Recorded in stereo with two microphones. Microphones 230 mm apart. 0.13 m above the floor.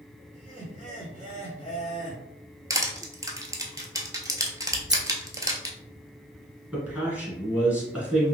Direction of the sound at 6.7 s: 5° right (ahead or behind).